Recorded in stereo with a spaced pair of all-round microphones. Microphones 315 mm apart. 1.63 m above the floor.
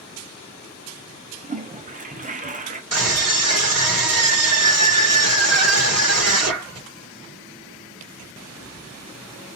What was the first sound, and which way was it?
A toilet flushing, 25° right (ahead or behind).